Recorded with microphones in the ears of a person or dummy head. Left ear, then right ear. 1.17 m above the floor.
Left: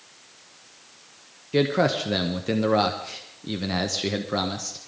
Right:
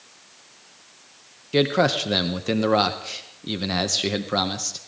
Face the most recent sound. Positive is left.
turn(degrees=-15)  # may be behind; listen again after turning